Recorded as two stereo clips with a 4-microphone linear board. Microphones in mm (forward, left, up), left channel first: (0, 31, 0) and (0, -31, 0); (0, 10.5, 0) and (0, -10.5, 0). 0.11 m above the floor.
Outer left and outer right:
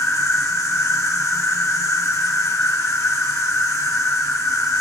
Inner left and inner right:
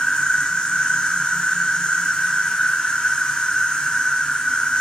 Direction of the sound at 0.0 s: 60° left (ahead or behind).